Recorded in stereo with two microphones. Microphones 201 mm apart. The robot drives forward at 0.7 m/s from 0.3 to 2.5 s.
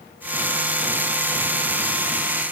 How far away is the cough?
No cough in this recording.